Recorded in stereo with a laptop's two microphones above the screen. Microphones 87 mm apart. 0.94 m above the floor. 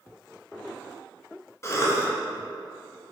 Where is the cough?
30° left (ahead or behind), 0.7 m.